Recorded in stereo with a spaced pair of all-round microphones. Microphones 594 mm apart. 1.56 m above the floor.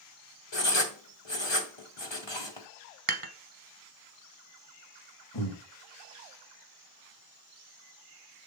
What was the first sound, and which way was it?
Writing, 45° left (ahead or behind).